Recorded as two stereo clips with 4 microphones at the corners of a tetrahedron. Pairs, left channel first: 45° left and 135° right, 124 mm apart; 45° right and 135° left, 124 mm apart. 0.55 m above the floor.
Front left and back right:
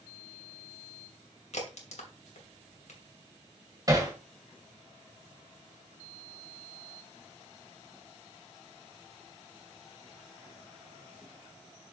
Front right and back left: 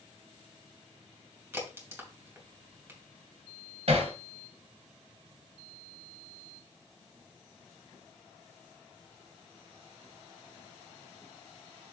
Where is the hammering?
165° left, 1.8 m.